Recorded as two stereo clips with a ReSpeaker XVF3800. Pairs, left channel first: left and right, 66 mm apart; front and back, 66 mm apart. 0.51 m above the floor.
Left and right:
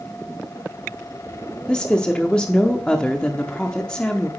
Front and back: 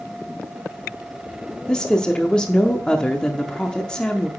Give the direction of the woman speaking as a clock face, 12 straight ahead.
11 o'clock.